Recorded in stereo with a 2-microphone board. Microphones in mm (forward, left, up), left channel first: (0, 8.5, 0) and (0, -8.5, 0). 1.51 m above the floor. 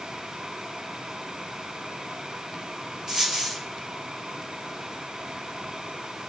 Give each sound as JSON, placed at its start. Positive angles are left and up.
{"t": 3.1, "sound": "a dropped coin", "side_deg": -30, "distance_m": 3.5}